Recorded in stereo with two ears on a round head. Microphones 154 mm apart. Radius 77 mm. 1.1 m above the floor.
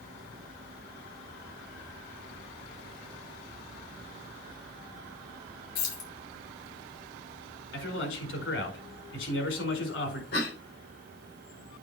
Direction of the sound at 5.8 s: 65° left (ahead or behind).